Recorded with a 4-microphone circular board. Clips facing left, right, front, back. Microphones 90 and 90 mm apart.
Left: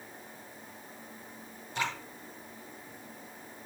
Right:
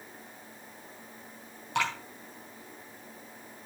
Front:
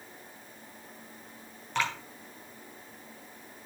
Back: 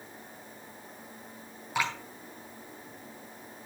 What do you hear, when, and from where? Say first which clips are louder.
1.8 s dripping: right 4 dB, even; 100° right, 4.5 m